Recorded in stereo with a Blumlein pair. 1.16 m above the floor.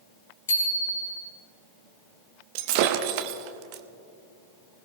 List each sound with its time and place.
0.5 s a bicycle bell: 65° left, 5 m
2.5 s breaking glass: 45° right, 1.0 m